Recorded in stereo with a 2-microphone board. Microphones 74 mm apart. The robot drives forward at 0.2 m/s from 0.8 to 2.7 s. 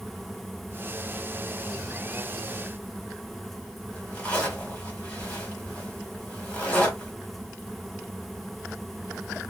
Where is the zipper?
20° left (ahead or behind), 1.4 m.